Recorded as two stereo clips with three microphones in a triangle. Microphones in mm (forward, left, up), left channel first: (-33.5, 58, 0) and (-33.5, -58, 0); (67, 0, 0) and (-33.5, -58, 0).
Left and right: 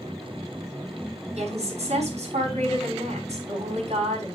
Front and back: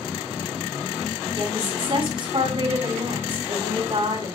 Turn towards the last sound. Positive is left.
turn(degrees=-110)